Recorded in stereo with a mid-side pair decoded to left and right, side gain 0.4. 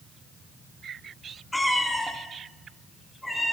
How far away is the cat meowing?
About 1.9 m.